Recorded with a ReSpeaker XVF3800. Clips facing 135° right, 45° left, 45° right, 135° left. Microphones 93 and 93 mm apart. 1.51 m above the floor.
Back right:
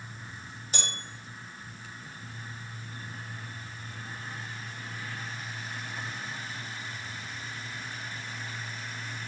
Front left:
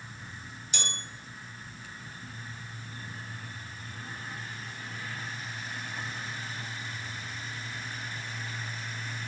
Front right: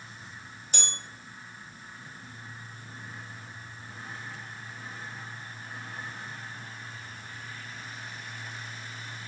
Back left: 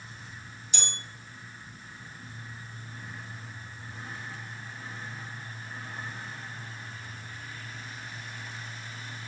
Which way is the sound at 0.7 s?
85° right.